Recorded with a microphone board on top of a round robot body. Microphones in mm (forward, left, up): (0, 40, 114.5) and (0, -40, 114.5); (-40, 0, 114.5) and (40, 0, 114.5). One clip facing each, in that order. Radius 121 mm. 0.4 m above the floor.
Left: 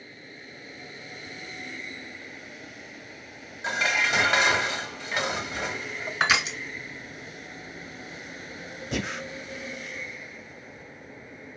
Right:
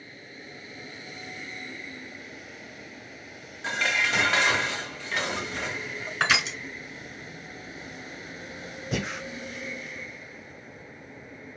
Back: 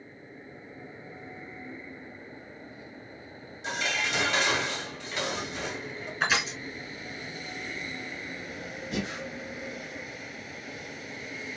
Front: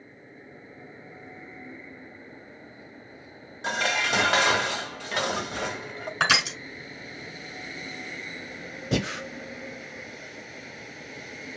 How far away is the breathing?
About 0.5 m.